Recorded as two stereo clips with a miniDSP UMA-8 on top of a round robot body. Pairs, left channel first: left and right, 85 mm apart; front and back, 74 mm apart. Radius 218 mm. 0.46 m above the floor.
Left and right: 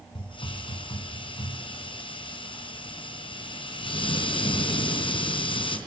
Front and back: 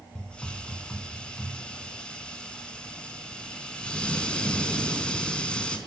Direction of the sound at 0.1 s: 75° left.